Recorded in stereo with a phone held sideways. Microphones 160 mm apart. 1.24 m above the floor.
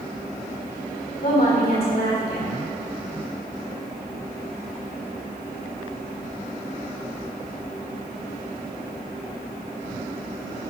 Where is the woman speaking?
75° left (ahead or behind), 4 m.